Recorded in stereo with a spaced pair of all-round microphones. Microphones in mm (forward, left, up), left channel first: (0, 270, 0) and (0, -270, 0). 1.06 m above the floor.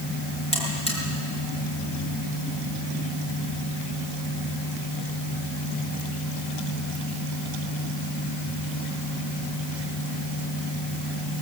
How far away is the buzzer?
About 5.5 m.